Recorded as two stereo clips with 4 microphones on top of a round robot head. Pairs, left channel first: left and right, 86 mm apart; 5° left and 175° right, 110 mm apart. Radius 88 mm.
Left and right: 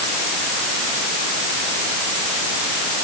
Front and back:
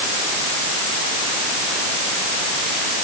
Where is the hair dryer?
I don't hear a hair dryer.